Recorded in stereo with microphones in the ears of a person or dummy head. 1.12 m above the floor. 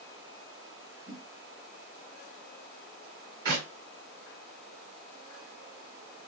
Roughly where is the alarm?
I don't hear an alarm.